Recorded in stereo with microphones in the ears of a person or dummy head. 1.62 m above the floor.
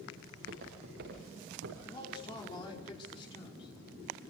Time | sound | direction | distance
0.3 | footsteps | 60° right (ahead or behind) | 8.5 m
1.8 | a man speaking | 25° left (ahead or behind) | 5 m